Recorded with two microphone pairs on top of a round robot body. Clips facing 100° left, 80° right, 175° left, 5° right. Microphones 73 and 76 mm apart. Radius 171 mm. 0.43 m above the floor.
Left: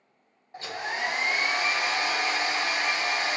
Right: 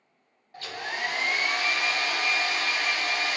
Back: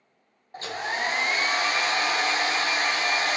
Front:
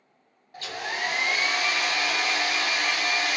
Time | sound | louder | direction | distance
0.5 | a hair dryer | left 2 dB, back 2 dB | 160° left | 0.6 m